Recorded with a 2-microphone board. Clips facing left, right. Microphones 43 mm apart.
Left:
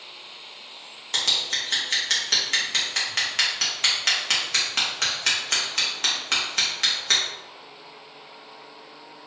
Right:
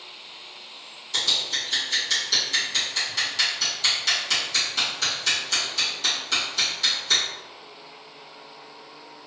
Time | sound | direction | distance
1.1 | scissors | 55° left (ahead or behind) | 1.1 m